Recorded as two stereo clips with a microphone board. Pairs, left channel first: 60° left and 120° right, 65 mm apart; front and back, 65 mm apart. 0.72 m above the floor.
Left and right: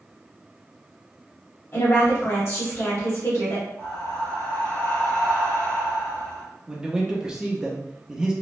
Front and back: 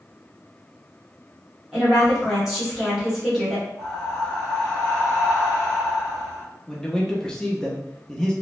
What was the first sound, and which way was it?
A woman speaking, 100° left.